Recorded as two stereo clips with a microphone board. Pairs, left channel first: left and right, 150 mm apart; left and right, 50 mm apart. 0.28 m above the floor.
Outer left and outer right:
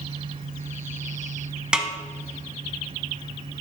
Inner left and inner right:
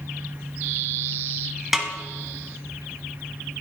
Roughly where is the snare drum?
Centre.